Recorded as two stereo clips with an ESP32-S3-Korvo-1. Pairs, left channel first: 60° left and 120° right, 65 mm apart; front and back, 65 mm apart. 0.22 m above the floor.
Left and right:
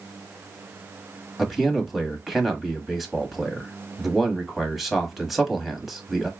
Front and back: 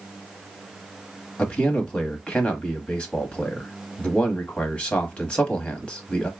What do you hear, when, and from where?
1.4 s a man speaking: 35° right, 1.0 m